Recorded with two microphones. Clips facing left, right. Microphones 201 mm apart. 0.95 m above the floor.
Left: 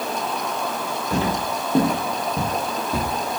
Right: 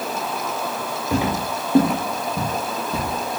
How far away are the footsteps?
About 0.9 m.